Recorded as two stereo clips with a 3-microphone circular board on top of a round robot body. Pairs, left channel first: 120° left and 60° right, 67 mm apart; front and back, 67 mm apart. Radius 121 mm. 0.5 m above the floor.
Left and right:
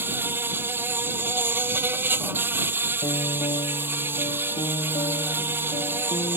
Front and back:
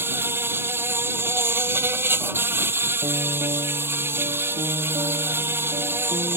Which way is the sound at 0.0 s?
125° right.